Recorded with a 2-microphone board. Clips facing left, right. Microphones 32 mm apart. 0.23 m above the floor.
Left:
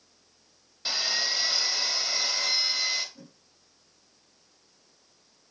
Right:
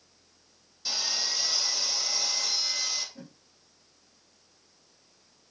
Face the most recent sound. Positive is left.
turn(degrees=-20)  # may be behind; listen again after turning